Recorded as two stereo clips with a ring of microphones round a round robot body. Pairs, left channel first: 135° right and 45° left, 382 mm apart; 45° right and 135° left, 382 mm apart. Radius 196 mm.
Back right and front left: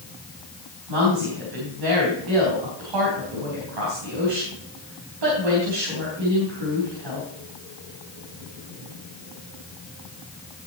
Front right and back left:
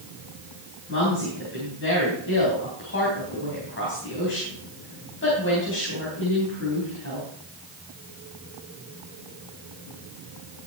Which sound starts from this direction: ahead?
A woman speaking, at 0.9 s.